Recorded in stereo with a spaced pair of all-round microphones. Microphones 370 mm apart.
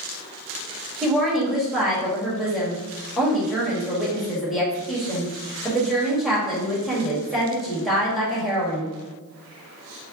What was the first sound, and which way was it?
A woman speaking, centre (ahead or behind).